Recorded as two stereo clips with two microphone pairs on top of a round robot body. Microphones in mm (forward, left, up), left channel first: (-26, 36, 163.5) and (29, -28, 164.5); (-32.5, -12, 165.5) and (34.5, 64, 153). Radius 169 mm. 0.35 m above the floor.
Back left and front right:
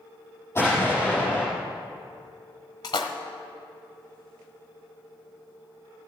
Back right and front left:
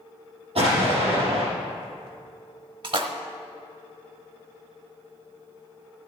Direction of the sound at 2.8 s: 90° left.